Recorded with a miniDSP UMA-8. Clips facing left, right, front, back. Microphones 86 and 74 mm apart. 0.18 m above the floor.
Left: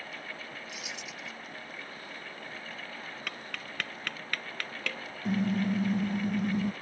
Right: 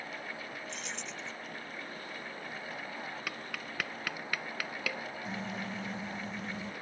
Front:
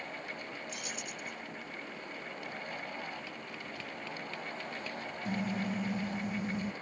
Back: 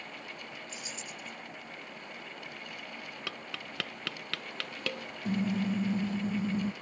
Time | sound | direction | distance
0.7 | keys jangling | 10° left | ?
3.3 | tapping | 175° right | ?
5.2 | a car horn | 120° left | ?